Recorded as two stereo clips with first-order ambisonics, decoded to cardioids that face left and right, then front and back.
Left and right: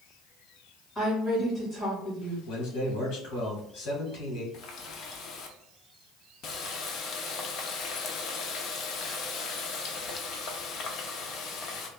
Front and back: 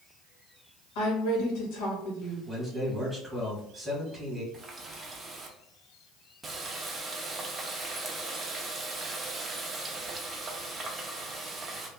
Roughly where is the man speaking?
Left.